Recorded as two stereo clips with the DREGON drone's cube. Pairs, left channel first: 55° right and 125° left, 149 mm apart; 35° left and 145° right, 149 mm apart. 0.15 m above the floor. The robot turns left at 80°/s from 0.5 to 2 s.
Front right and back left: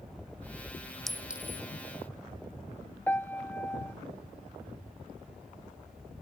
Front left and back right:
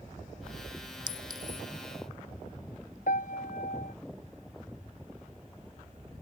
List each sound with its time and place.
1.1 s a clink: 140° right; by 1.6 s 175° left
3.1 s a piano: 20° left